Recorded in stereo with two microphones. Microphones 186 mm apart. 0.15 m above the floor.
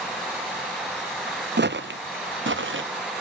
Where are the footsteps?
60° right (ahead or behind), 0.7 m; by 2.8 s 75° right (ahead or behind), 1.3 m.